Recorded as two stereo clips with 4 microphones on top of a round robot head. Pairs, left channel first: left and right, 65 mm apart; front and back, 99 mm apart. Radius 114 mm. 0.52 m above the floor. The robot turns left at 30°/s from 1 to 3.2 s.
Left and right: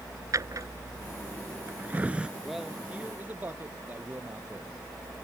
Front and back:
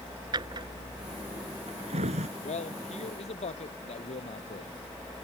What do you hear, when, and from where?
0.3 s a drawer: 130° right; by 2.3 s 165° right
2.4 s a man speaking: straight ahead; by 4.7 s 25° right